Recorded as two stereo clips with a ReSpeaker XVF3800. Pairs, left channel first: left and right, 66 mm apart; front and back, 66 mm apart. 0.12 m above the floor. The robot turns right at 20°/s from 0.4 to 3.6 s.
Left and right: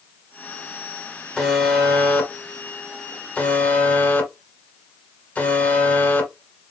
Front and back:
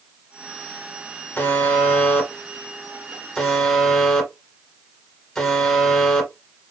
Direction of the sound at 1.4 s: 35° left.